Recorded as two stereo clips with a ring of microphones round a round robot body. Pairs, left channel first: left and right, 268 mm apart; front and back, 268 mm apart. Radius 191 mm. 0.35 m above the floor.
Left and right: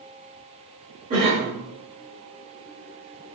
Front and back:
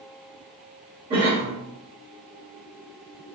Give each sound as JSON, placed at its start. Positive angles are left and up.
{"t": 1.1, "sound": "a cough", "azimuth_deg": -130, "distance_m": 0.9}